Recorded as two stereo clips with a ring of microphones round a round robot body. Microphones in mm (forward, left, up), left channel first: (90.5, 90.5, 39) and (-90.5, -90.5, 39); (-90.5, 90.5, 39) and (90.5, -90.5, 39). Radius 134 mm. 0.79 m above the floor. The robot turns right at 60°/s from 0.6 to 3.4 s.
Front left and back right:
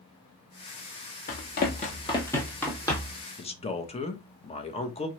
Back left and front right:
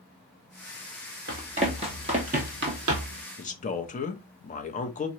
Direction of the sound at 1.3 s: Straight ahead.